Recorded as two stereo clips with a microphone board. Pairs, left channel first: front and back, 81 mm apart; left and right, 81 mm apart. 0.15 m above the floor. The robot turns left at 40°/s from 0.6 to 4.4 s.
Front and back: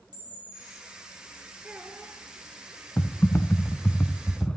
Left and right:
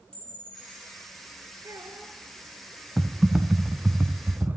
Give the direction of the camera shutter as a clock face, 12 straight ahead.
6 o'clock.